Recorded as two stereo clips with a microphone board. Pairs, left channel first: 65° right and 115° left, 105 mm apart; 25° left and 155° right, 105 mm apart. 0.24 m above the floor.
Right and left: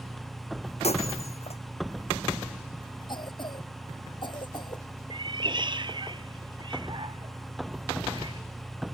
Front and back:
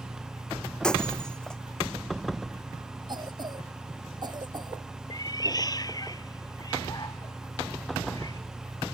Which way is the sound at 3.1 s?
110° right.